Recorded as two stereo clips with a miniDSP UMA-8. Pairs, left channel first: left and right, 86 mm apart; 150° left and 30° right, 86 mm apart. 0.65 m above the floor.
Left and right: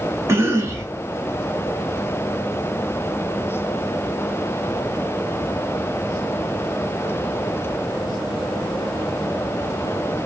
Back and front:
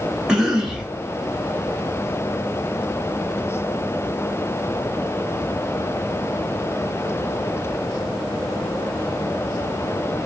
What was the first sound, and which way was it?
A cough, 100° right.